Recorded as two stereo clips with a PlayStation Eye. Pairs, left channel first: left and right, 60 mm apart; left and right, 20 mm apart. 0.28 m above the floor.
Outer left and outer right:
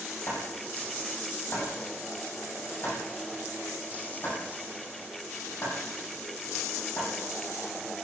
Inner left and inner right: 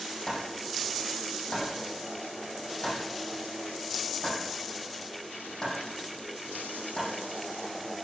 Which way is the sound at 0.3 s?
40° left (ahead or behind).